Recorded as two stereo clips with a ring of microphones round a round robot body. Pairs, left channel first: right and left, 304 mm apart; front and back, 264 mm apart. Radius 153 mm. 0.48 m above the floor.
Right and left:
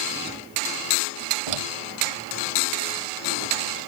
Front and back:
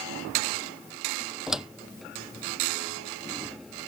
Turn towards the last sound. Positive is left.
turn(degrees=90)